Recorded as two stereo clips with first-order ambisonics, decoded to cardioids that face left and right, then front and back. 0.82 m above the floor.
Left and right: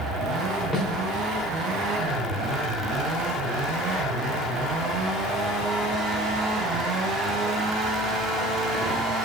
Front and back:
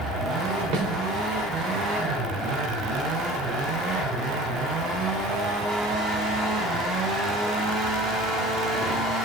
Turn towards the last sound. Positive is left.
turn(degrees=175)